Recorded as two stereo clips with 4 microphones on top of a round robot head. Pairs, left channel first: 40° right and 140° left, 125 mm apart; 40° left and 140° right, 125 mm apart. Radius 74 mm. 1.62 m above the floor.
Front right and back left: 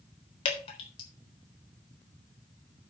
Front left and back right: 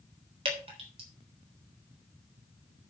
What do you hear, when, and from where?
0.5 s dripping: 90° right, 3.5 m